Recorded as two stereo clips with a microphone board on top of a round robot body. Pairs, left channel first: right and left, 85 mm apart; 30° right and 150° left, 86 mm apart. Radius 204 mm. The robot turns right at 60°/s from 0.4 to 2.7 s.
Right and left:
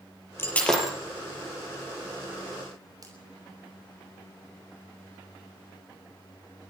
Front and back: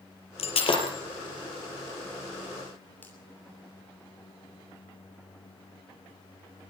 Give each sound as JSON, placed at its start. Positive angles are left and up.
{"t": 0.4, "sound": "breaking glass", "azimuth_deg": -25, "distance_m": 6.5}
{"t": 3.0, "sound": "a finger snap", "azimuth_deg": 40, "distance_m": 7.0}